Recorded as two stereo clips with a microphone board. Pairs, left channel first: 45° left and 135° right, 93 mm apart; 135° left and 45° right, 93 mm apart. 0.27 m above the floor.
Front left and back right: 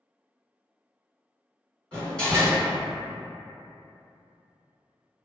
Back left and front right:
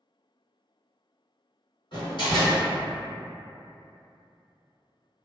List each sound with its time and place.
1.9 s a door slam: 125° left, 1.9 m